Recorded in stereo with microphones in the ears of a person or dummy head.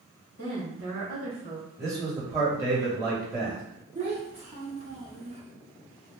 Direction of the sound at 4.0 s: 30° right (ahead or behind).